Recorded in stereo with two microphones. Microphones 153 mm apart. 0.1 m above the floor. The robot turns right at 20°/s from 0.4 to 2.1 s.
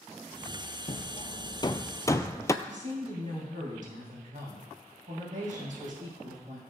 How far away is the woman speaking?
About 5 m.